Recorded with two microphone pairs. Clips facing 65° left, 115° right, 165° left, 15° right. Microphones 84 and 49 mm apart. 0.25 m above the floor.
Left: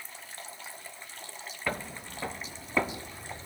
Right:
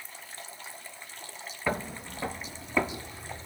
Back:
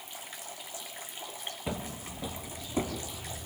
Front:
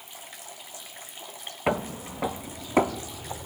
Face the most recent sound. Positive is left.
turn(degrees=-15)